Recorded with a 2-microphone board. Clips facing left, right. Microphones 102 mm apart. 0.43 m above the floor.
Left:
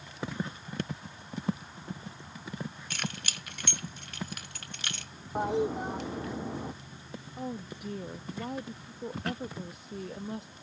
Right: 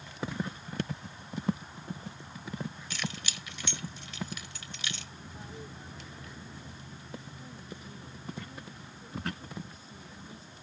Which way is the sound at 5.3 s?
75° left (ahead or behind).